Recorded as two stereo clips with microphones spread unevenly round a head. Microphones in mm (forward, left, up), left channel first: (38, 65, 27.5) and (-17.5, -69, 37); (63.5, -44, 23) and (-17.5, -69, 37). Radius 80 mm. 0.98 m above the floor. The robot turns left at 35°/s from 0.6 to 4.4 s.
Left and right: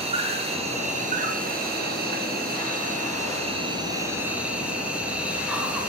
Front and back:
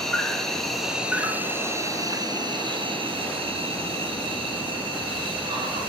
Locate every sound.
0.0 s an insect: 65° right, 2.5 m; by 5.9 s 165° left, 2.5 m